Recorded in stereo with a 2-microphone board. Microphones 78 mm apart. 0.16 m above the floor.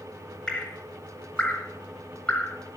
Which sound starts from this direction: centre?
Dripping, at 0.5 s.